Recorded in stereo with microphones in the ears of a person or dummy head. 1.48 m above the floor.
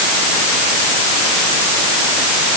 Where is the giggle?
I don't hear a giggle.